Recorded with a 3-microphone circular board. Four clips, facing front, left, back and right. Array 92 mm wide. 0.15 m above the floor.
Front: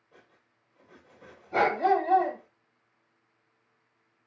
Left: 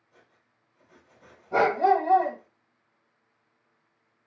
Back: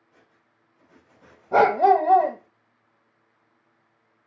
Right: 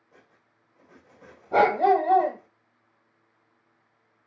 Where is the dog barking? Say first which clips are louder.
Right 2 dB, back 7 dB; 165° right, 1.3 m.